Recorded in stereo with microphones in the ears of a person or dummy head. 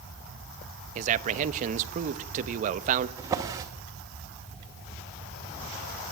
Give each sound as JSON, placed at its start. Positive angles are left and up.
{"t": 0.9, "sound": "a man speaking", "side_deg": -45, "distance_m": 1.1}
{"t": 3.2, "sound": "a drawer", "side_deg": -20, "distance_m": 1.9}